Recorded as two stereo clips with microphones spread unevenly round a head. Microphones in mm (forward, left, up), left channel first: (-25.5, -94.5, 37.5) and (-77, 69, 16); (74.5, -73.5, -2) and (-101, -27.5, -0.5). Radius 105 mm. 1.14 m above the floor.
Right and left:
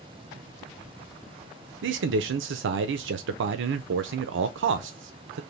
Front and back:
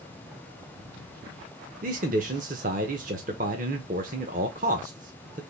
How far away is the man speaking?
About 0.5 m.